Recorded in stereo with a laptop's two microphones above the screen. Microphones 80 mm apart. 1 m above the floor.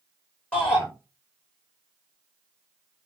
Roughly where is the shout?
Centre.